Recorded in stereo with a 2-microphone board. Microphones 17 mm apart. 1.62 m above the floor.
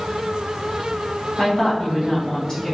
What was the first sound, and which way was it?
A woman speaking, 30° left (ahead or behind).